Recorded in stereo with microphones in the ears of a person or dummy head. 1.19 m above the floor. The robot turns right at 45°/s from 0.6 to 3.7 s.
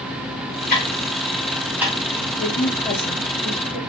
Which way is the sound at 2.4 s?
45° left (ahead or behind).